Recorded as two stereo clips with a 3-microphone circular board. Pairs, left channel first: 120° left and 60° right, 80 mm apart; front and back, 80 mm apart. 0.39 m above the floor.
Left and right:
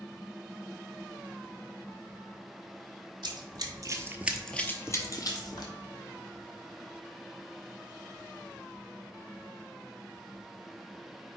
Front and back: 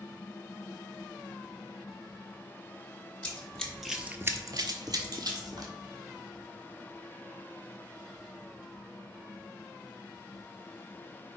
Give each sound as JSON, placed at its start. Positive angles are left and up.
{"t": 3.2, "sound": "running footsteps", "azimuth_deg": -75, "distance_m": 1.1}